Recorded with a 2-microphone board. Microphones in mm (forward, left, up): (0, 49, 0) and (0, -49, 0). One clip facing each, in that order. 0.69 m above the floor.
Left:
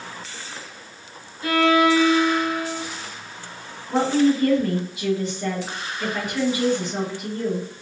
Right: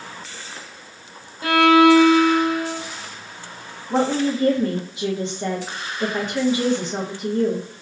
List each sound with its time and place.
1.4 s a violin: 85° right, 0.8 m
3.9 s a woman speaking: 25° right (ahead or behind), 0.9 m